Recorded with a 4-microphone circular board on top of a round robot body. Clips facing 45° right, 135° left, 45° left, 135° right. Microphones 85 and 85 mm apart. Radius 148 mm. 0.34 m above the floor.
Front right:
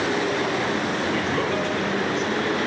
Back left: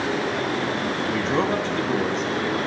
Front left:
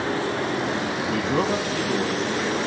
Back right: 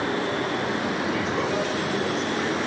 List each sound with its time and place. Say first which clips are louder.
1.1 s a man speaking: back left 4 dB, front left 6 dB; 75° left, 3.5 m; by 2.6 s 95° left, 3 m